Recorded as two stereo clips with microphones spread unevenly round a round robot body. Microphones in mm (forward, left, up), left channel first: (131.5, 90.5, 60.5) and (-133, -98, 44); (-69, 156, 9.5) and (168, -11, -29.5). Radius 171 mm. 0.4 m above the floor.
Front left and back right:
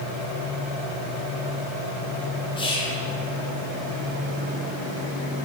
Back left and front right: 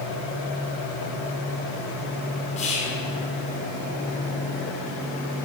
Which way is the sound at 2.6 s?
95° left.